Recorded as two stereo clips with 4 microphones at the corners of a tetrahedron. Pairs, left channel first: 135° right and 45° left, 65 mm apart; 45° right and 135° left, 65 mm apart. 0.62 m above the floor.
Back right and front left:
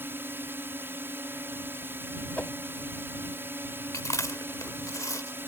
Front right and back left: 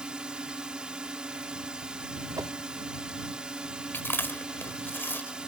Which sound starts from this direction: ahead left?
A drone, at 0.0 s.